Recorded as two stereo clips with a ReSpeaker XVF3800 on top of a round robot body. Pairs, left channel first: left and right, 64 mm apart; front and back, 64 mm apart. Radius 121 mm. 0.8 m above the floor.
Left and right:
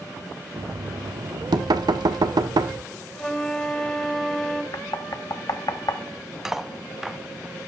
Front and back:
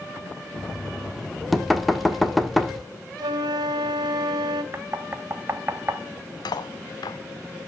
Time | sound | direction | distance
0.6 | knocking | 90° right | 1.5 m
3.2 | a flute | 170° left | 2.0 m
4.7 | knocking | 125° left | 1.1 m
6.5 | cutlery clinking | 5° right | 0.8 m